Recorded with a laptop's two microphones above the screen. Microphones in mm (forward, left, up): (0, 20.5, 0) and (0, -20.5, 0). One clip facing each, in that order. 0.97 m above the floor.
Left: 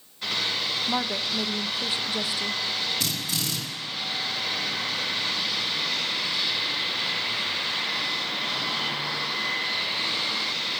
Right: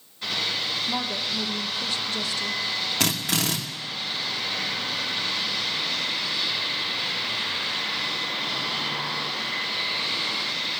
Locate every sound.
0.9 s a woman speaking: 20° left (ahead or behind), 0.8 m
3.0 s a drill: 85° right, 1.2 m